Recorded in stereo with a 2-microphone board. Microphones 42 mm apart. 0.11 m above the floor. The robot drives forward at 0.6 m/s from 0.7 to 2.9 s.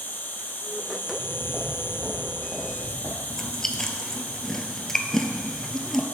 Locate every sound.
0.0 s an insect: 50° left (ahead or behind), 1.1 m; by 6.1 s 45° left (ahead or behind), 1.1 m
1.0 s footsteps: 20° right (ahead or behind), 2 m; by 3.2 s 5° right (ahead or behind), 4 m
3.3 s chewing: 10° left (ahead or behind), 0.7 m